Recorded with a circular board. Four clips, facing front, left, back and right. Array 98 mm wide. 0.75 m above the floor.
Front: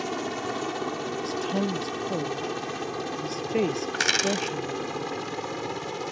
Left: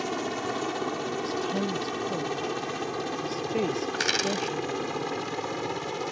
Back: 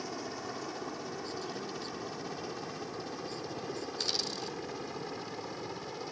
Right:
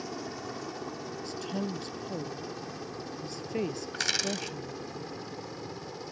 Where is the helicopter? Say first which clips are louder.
Left 8 dB, front 9 dB; 45° left; by 6.1 s 55° left.